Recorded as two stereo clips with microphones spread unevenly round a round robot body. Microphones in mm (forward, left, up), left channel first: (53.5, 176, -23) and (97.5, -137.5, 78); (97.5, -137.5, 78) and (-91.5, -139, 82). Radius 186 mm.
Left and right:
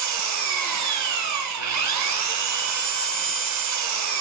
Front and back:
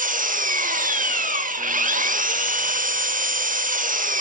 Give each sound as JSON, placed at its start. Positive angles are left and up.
{"t": 0.0, "sound": "an engine running", "azimuth_deg": -135, "distance_m": 1.2}